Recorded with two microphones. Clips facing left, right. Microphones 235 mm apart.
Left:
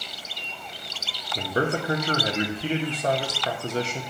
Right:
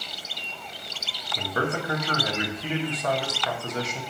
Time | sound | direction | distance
1.4 | a man speaking | 30° left (ahead or behind) | 0.6 m